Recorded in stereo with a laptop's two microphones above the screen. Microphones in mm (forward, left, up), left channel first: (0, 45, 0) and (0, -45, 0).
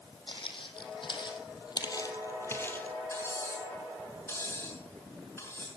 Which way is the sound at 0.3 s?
70° left (ahead or behind).